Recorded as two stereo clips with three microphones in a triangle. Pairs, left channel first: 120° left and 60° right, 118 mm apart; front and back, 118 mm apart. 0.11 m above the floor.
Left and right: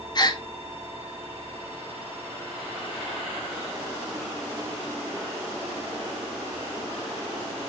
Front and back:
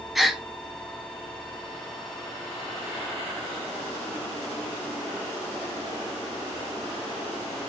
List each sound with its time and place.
0.1 s a gasp: 90° left, 0.6 m